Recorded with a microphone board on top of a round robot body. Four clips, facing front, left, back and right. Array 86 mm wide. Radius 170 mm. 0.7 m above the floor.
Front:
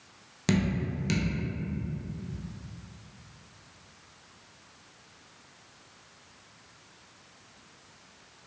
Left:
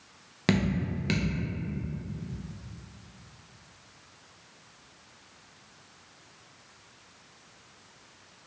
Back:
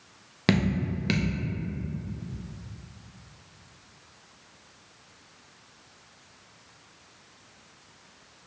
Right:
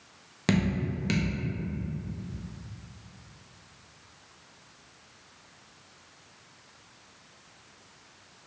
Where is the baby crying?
No baby crying in this recording.